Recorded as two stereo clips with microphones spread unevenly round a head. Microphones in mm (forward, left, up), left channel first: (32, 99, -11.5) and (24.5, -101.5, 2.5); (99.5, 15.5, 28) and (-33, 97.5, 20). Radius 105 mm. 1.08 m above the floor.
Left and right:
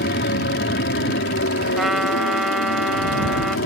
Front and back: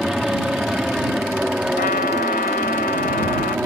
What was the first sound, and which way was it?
An aircraft, 60° left.